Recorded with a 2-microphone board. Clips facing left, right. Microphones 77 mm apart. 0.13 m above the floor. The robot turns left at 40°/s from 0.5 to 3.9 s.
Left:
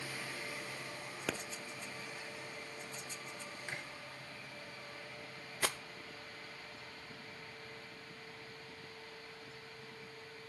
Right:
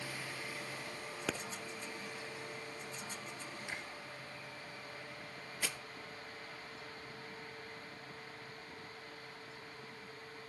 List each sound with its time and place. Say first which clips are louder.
1.3 s a pop: even; centre (ahead or behind), 0.9 m; by 1.4 s 5° right (ahead or behind), 0.9 m
3.7 s chewing: left 1 dB; 40° left (ahead or behind), 5 m; by 3.8 s 45° left (ahead or behind), 5 m
5.6 s a rattle: left 5 dB; 55° left (ahead or behind), 0.5 m